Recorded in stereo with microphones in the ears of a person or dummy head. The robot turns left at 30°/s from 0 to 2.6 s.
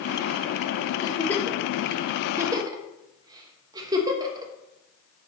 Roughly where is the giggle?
Left.